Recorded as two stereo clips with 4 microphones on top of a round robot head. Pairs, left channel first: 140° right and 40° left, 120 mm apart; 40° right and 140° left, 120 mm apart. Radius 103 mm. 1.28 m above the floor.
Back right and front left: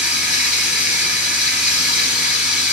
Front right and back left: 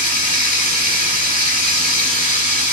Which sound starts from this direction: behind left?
Running water, at 0.0 s.